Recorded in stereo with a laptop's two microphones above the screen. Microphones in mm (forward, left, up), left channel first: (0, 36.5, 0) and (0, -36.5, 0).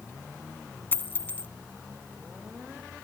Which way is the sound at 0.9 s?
25° left (ahead or behind).